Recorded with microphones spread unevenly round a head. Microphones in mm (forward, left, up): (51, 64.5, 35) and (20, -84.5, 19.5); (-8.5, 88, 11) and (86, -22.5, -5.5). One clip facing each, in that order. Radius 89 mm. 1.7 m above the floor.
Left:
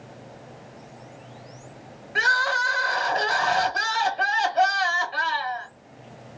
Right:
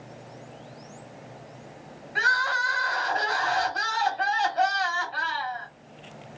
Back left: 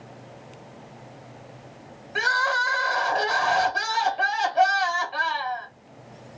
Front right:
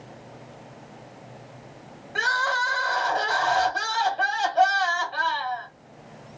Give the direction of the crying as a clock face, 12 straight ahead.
10 o'clock.